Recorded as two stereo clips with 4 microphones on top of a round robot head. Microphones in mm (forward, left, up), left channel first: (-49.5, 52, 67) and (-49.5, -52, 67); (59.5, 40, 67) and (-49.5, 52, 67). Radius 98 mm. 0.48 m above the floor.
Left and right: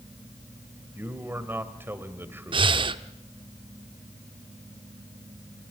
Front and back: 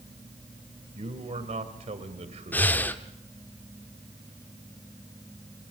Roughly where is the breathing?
Right.